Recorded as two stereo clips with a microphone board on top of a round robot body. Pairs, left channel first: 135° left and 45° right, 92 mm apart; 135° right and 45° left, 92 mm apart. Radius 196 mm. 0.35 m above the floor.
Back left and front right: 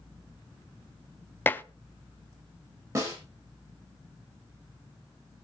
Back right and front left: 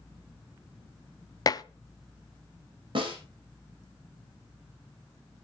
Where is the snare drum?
10° left, 5.5 m.